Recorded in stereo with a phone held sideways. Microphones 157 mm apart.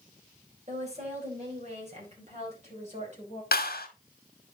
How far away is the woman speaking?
About 4.5 m.